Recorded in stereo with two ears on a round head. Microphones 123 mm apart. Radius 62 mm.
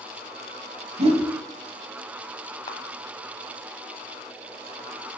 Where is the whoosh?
45° right (ahead or behind), 1.2 m.